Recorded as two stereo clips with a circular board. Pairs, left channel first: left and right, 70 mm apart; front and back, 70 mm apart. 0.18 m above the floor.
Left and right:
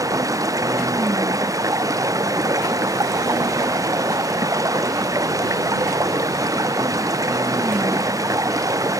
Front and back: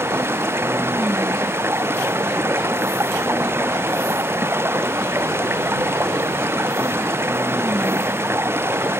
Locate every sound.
0.0 s running water: 125° right